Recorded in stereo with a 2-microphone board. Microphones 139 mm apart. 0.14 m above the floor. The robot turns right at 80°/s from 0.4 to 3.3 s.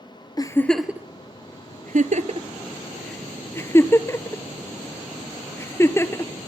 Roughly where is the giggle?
Left.